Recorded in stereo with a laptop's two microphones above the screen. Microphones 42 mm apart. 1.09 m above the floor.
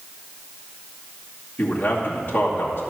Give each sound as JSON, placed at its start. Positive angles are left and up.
{"t": 1.6, "sound": "a man speaking", "side_deg": 50, "distance_m": 2.5}